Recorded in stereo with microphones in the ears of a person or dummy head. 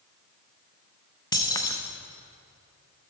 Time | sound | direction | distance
1.3 | keys jangling | 20° left (ahead or behind) | 0.5 m